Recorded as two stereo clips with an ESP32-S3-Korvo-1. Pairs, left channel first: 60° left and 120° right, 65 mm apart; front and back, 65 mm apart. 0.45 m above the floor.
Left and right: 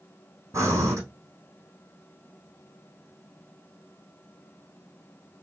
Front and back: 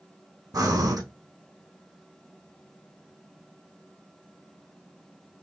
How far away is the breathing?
About 3.5 m.